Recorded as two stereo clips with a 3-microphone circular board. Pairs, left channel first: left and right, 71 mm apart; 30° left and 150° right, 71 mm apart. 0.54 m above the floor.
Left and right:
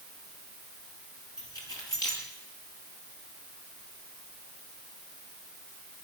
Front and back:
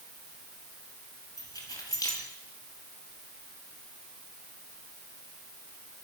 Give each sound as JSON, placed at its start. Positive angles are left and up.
{"t": 1.4, "sound": "keys jangling", "azimuth_deg": 65, "distance_m": 7.5}